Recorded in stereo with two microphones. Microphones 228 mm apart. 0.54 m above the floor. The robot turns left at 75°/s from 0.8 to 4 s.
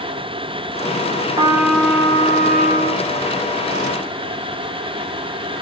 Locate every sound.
1.4 s a trumpet: 150° right, 1.4 m; by 3.1 s 80° left, 1.4 m